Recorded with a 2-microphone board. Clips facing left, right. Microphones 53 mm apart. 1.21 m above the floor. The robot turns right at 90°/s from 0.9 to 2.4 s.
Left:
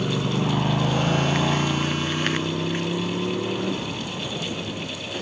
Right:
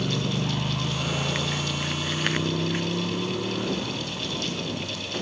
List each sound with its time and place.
0.0 s a motorcycle: 20° left (ahead or behind)